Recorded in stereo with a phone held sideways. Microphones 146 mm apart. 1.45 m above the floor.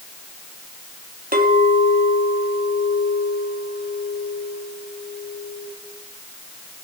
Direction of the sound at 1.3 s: 80° right.